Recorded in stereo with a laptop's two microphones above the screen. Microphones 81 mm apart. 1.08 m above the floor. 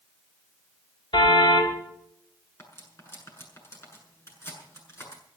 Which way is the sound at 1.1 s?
80° left.